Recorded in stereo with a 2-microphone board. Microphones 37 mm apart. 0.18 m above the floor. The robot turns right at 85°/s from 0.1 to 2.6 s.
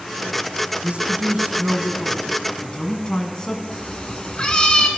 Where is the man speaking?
115° right, 1.3 m; by 3.6 s 35° left, 1.3 m.